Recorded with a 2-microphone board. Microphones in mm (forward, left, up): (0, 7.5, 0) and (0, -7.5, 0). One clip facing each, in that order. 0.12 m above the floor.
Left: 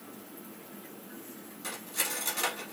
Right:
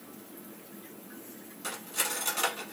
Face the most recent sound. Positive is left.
turn(degrees=-15)  # may be behind; listen again after turning